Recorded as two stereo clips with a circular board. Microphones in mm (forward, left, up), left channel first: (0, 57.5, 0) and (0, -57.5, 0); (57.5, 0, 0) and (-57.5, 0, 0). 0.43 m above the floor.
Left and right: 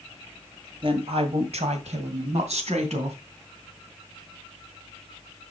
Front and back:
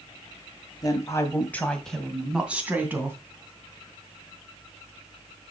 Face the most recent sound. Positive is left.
turn(degrees=-110)